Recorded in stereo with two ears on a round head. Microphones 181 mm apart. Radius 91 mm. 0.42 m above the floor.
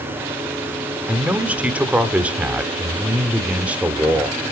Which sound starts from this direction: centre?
A man speaking, at 1.1 s.